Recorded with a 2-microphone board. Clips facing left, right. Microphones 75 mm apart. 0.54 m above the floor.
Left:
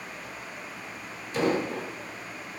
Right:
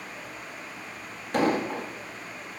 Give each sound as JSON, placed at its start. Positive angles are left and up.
{"t": 1.3, "sound": "an explosion", "side_deg": -60, "distance_m": 3.5}